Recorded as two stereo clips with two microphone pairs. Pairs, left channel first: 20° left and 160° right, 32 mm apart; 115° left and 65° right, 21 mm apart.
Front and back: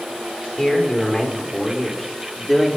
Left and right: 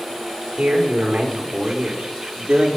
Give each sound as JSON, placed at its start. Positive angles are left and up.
{"t": 0.6, "sound": "a man speaking", "azimuth_deg": -50, "distance_m": 4.5}